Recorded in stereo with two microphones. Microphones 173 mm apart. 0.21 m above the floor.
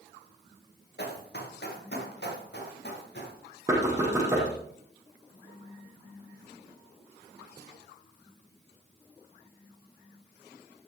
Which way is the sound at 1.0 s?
70° left (ahead or behind).